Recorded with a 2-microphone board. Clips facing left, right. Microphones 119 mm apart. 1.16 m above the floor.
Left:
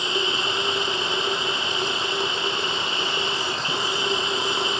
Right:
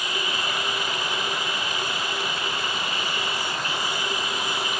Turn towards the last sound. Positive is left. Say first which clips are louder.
# left 3 dB
turn(degrees=25)  # may be behind; listen again after turning